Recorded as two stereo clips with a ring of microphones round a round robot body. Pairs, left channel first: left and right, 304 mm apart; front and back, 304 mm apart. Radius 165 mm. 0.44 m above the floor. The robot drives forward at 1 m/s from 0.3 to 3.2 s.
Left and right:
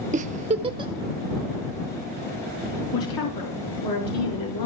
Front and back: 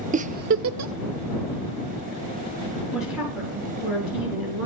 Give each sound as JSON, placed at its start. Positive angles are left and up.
{"t": 0.1, "sound": "a giggle", "azimuth_deg": -135, "distance_m": 0.6}
{"t": 2.9, "sound": "a woman speaking", "azimuth_deg": 90, "distance_m": 5.5}